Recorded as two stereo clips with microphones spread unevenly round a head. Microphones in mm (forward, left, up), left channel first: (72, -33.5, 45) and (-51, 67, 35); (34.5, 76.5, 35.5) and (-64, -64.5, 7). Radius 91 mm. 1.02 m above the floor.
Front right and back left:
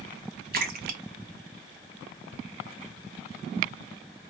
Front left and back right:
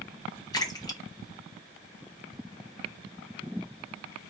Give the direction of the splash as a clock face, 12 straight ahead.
8 o'clock.